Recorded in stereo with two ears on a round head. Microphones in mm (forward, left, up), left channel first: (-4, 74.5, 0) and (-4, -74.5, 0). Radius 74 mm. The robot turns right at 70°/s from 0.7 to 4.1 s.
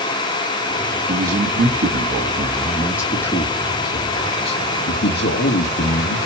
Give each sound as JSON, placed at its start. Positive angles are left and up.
{"t": 1.1, "sound": "a man speaking", "azimuth_deg": -140, "distance_m": 1.6}